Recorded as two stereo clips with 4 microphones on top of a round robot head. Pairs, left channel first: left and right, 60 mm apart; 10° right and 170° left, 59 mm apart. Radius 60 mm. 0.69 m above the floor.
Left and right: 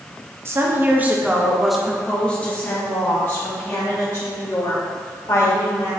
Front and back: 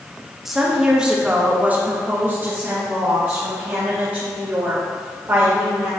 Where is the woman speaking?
105° right, 1.4 m; by 5.9 s 115° left, 3.5 m.